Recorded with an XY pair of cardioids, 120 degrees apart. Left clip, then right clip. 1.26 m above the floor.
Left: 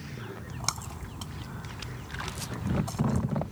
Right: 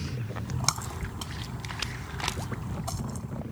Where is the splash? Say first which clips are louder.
Right 4 dB; 20° right.